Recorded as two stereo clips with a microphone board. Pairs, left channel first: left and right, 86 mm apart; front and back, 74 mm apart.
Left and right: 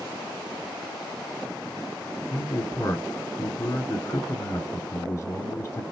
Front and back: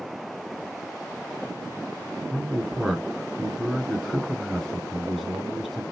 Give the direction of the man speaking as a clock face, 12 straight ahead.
9 o'clock.